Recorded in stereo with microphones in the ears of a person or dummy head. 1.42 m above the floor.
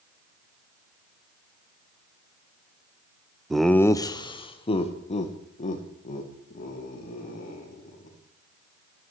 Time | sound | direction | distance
3.5 | laughter | 5° right (ahead or behind) | 0.5 m